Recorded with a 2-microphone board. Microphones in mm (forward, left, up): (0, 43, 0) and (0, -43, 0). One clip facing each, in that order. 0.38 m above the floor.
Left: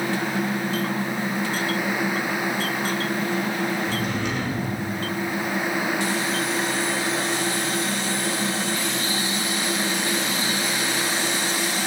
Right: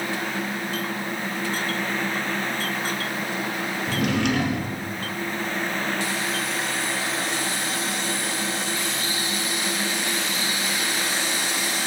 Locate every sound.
3.9 s a drawer: 70° right (ahead or behind), 2 m